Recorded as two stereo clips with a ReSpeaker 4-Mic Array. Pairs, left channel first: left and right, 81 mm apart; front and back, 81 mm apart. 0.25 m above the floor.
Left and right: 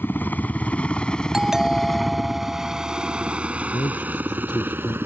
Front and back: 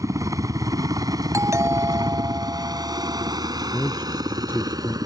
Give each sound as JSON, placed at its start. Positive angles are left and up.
{"t": 0.0, "sound": "a helicopter", "azimuth_deg": 150}
{"t": 1.3, "sound": "a doorbell", "azimuth_deg": -170}
{"t": 3.7, "sound": "a man speaking", "azimuth_deg": 65}